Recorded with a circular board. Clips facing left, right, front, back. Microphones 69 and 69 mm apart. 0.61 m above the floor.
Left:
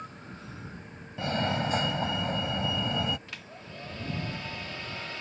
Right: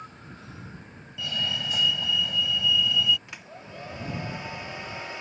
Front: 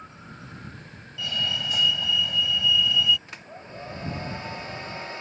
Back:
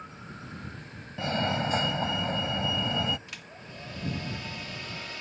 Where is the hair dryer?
30° right.